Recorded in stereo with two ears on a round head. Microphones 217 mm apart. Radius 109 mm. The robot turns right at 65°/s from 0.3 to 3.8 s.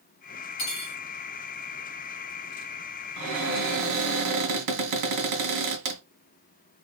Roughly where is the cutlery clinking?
Left.